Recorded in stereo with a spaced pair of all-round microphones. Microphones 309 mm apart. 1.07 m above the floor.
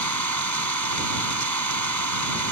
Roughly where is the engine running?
Right.